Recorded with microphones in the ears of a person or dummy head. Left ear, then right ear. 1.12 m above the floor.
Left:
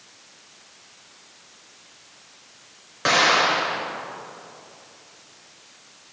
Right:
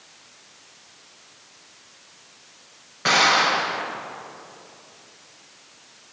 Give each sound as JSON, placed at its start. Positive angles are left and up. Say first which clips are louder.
{"t": 3.0, "sound": "an explosion", "louder": "even", "side_deg": 50, "distance_m": 2.5}